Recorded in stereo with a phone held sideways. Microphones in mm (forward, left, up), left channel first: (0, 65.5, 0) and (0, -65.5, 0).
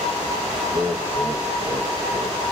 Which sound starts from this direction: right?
Laughter, at 0.7 s.